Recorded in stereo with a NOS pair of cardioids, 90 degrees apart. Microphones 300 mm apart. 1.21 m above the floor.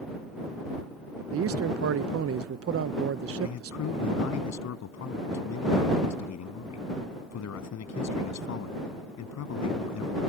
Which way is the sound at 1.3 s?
50° right.